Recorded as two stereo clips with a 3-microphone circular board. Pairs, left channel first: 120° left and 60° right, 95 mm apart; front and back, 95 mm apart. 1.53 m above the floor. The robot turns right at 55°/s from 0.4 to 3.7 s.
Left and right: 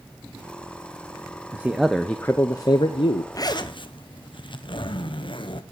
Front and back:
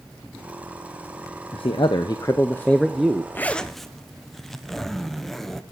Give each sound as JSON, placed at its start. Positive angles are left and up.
{"t": 1.5, "sound": "a man speaking", "azimuth_deg": 10, "distance_m": 0.6}
{"t": 3.3, "sound": "a zipper", "azimuth_deg": 65, "distance_m": 0.8}